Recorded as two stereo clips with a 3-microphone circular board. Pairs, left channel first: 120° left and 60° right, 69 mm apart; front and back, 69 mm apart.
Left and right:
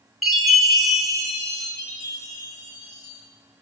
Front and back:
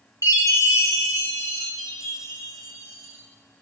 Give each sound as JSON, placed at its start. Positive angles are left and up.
{"t": 0.2, "sound": "a chime", "azimuth_deg": 25, "distance_m": 3.5}
{"t": 1.8, "sound": "a chime", "azimuth_deg": 95, "distance_m": 5.0}